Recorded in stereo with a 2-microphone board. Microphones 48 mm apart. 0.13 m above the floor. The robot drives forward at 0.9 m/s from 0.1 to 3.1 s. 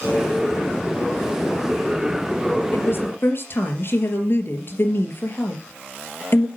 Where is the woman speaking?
50° left (ahead or behind), 3 m; by 6.5 s 55° left (ahead or behind), 3 m.